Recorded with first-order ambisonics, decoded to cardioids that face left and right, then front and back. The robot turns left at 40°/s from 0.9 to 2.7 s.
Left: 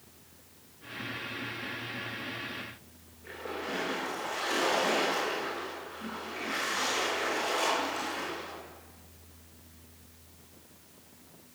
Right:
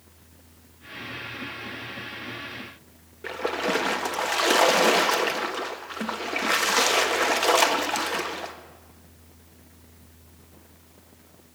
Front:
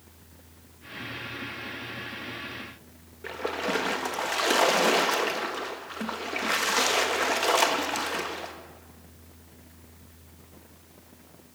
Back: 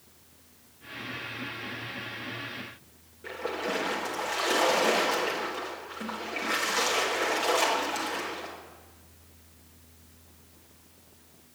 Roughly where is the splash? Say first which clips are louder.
Right 11 dB, front 2 dB; right.